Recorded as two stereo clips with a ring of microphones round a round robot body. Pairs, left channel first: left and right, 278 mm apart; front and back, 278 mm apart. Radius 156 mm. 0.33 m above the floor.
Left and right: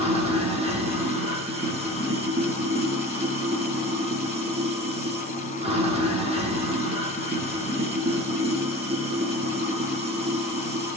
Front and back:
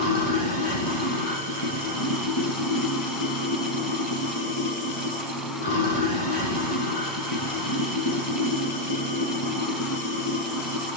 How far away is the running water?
About 6.5 m.